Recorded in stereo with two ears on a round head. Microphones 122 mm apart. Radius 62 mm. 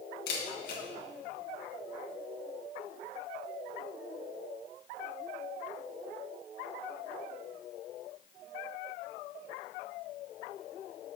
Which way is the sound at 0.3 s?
80° left.